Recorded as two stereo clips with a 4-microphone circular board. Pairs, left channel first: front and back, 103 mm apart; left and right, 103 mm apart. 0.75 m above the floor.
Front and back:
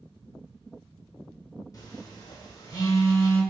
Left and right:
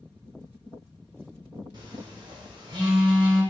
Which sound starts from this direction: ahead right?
A phone buzzing, at 1.7 s.